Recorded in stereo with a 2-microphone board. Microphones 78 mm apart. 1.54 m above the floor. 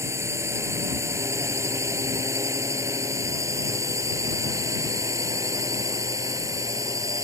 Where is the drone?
40° right (ahead or behind); by 7.2 s 45° right (ahead or behind).